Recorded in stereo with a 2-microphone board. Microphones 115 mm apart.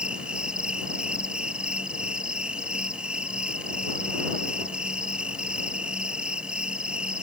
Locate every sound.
0.0 s an insect: 10° right (ahead or behind)